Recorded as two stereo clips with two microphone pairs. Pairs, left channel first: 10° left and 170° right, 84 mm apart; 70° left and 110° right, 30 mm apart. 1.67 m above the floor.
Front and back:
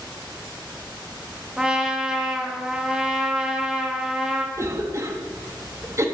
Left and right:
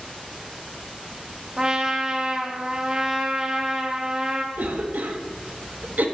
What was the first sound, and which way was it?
A trumpet, 100° right.